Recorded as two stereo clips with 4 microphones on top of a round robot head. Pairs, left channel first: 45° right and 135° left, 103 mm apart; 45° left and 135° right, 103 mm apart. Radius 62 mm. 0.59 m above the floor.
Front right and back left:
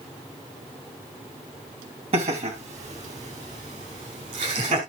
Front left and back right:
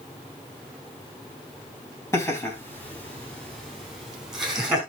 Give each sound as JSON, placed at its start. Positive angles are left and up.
{"t": 2.1, "sound": "laughter", "azimuth_deg": 110, "distance_m": 3.5}